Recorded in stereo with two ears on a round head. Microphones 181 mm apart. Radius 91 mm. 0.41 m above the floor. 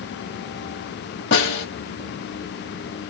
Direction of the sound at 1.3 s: 60° left (ahead or behind).